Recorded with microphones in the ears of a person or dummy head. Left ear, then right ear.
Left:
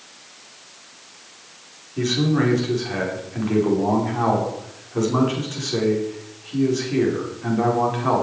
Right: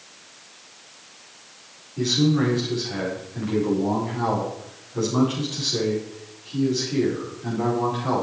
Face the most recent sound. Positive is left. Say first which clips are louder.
# even
turn(degrees=30)  # may be behind; listen again after turning